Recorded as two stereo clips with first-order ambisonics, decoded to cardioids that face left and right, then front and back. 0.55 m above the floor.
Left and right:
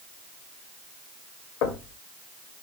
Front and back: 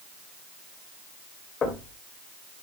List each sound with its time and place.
1.6 s knocking: 65° left, 2 m